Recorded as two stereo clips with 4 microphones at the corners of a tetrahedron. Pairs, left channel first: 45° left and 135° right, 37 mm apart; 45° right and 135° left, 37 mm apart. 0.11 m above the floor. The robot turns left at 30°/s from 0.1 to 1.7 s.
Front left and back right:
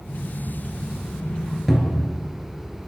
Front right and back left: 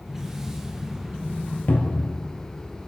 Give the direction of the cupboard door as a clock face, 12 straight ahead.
2 o'clock.